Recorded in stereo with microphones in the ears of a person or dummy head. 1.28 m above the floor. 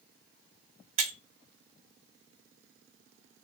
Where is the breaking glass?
45° right (ahead or behind), 1.1 m.